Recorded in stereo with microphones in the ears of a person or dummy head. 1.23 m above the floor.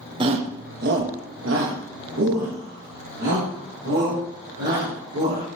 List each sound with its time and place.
0.2 s a shout: 30° right (ahead or behind), 0.7 m; by 5.5 s 55° right (ahead or behind), 4 m